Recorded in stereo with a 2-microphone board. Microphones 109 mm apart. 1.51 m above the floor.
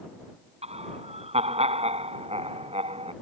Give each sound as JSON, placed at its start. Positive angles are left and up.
{"t": 0.6, "sound": "laughter", "side_deg": -75}